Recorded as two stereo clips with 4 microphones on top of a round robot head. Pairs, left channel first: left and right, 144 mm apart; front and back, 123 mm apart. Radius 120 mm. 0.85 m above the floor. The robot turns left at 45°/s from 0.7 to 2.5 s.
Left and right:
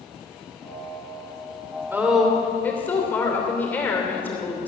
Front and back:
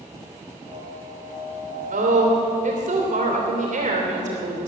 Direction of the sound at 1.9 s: 165° right.